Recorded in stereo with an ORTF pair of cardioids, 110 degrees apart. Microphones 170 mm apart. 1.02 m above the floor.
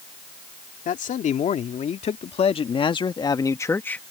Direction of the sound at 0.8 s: 50° left.